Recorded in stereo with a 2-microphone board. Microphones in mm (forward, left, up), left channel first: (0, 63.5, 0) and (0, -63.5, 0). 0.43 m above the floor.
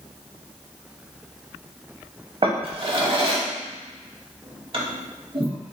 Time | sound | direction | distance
2.4 | a drawer | 45° right (ahead or behind) | 0.6 m